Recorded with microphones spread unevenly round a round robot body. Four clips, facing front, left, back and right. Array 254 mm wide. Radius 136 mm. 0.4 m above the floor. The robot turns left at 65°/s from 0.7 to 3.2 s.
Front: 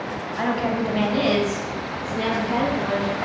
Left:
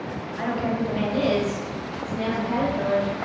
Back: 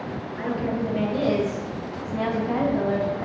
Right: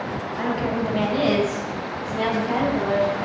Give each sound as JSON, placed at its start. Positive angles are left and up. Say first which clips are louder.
{"t": 0.4, "sound": "a woman speaking", "louder": "right 1 dB, front 3 dB", "azimuth_deg": -10, "distance_m": 2.5}